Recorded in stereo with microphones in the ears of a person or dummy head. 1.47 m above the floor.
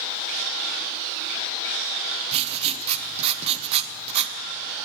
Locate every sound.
2.3 s writing: 35° right (ahead or behind), 0.7 m